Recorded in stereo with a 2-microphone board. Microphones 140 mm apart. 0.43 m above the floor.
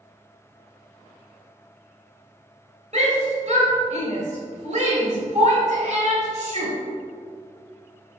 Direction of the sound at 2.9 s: 55° right (ahead or behind).